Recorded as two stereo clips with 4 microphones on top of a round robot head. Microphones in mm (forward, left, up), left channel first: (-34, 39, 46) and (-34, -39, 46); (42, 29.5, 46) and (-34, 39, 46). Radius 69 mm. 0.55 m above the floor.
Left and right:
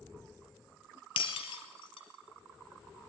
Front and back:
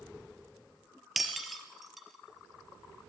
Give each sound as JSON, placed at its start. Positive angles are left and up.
{"t": 1.2, "sound": "breaking glass", "azimuth_deg": 85, "distance_m": 3.5}